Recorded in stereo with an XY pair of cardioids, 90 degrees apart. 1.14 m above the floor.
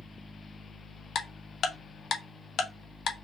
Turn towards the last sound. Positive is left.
turn(degrees=65)